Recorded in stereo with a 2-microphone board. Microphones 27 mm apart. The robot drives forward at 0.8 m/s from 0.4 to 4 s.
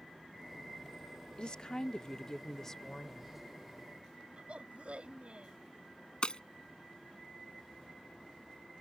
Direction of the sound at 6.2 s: 40° left (ahead or behind).